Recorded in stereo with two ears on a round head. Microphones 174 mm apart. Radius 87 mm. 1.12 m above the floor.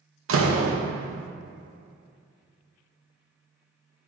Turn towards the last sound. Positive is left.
turn(degrees=-80)